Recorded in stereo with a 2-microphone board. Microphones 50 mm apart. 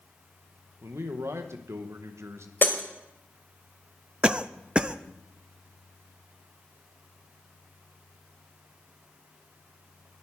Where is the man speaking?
70° right (ahead or behind), 1.5 m.